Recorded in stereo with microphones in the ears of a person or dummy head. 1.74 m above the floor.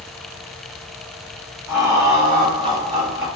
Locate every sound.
1.7 s laughter: 10° right (ahead or behind), 0.8 m; by 3.3 s 30° right (ahead or behind), 0.8 m